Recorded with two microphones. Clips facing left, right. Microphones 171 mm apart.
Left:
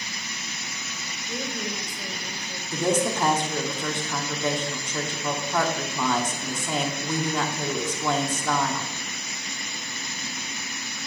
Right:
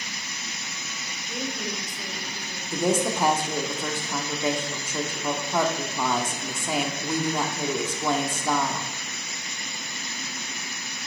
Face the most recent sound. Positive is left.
turn(degrees=-10)  # may be behind; listen again after turning